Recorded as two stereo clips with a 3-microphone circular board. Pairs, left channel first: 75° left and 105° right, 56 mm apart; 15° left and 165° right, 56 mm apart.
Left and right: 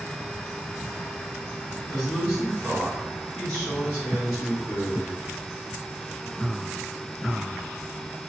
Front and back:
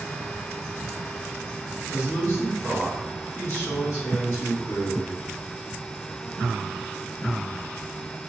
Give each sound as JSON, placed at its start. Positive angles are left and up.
{"t": 1.9, "sound": "a man speaking", "azimuth_deg": 40, "distance_m": 1.9}